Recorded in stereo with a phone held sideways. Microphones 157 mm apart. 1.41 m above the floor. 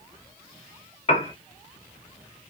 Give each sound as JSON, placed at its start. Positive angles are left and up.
{"t": 1.1, "sound": "a piano", "side_deg": 40, "distance_m": 0.6}